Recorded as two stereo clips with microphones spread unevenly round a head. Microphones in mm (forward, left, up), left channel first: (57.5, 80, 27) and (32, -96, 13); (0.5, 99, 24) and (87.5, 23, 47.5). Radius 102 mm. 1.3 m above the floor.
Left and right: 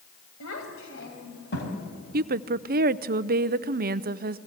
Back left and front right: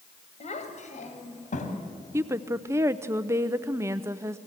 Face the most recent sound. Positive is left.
turn(degrees=-115)